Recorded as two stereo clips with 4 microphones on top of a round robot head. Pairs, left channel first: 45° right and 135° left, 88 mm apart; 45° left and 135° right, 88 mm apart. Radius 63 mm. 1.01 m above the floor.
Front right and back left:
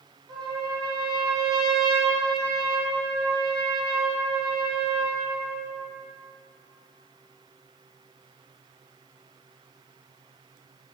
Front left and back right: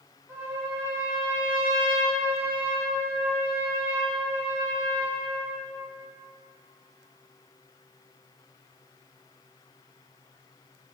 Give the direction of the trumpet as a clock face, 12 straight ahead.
7 o'clock.